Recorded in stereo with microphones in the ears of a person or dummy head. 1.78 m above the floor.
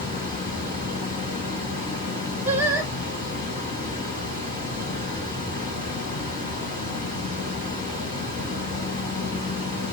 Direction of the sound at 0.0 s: 15° left (ahead or behind).